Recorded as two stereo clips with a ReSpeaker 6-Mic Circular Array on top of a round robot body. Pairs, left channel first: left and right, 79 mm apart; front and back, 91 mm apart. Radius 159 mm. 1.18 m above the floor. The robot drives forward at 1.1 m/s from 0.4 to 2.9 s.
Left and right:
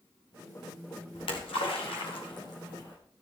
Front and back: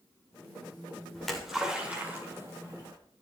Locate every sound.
1.1 s a splash: 85° left, 2.5 m; by 3.0 s 130° left, 3 m